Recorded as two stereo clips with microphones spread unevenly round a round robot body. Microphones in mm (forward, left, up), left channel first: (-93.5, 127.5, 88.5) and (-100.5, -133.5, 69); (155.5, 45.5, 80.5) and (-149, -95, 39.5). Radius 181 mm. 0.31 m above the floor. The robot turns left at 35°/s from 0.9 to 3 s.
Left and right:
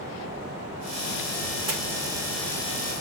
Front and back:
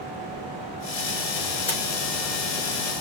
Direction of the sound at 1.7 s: 50° right.